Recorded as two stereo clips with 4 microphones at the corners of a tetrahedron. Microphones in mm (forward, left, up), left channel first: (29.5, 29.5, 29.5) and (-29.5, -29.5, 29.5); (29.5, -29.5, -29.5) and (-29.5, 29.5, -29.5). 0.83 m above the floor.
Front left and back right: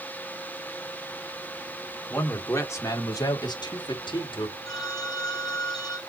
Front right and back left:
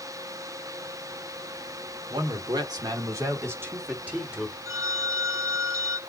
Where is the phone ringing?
75° left, 3 m.